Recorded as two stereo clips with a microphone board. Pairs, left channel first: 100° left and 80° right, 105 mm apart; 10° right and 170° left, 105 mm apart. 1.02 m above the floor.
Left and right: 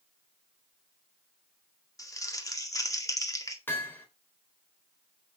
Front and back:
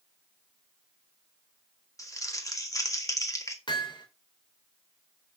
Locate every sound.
2.0 s crumpling: 45° left, 2 m
3.7 s hammering: 30° left, 3.5 m